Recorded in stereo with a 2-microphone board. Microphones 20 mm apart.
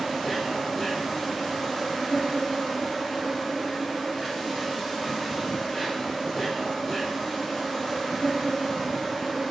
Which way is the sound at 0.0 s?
20° left (ahead or behind).